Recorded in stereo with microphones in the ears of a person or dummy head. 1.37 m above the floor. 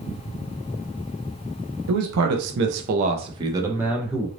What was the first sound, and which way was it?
A man speaking, 80° right.